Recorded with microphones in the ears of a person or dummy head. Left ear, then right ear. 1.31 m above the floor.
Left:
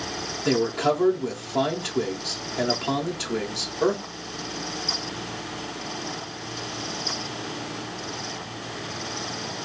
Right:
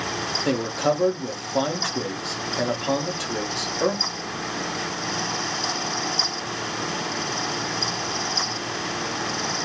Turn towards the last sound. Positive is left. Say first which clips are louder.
# left 3 dB
turn(degrees=-15)  # may be behind; listen again after turning